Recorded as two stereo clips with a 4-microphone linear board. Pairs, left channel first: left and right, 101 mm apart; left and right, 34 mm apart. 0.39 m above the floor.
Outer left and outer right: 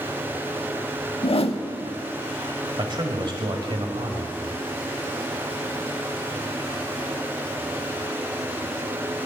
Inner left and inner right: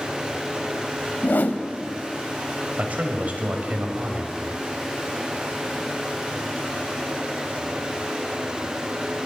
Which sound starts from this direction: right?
A man speaking, at 2.8 s.